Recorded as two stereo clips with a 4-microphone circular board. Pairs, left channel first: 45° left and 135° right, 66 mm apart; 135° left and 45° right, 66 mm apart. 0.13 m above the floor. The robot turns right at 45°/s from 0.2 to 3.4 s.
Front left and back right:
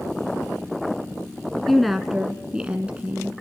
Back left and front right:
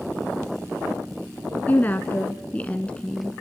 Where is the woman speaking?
125° left, 1.1 m; by 3.3 s 160° right, 1.1 m.